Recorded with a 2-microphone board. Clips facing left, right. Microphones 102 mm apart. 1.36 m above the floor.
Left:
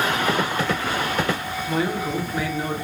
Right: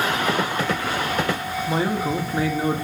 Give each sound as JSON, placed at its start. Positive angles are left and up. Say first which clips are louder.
{"t": 1.7, "sound": "a man speaking", "louder": "right 1 dB", "side_deg": -30, "distance_m": 1.5}